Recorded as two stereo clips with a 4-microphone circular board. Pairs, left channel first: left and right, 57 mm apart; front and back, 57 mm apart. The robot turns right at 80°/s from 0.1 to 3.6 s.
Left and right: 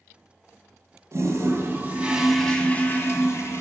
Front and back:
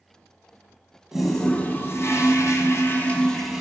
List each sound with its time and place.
1.1 s a toilet flushing: 100° right, 1.2 m; by 3.6 s 100° left, 1.2 m